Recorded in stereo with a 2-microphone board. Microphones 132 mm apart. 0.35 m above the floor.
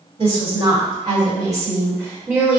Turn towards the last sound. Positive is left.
turn(degrees=-5)  # may be behind; listen again after turning